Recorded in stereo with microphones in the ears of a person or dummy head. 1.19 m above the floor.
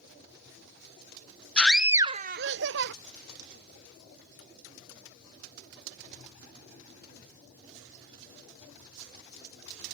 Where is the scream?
10° left (ahead or behind); by 2.9 s 60° right (ahead or behind).